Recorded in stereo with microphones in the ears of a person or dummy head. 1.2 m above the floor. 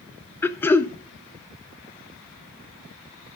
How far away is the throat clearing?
About 0.6 m.